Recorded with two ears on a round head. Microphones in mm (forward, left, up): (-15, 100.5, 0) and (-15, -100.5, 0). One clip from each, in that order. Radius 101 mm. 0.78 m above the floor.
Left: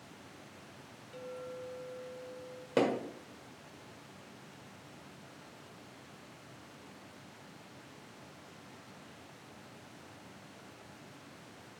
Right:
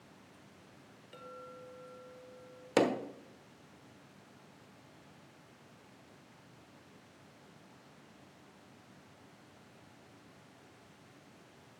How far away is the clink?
About 0.9 m.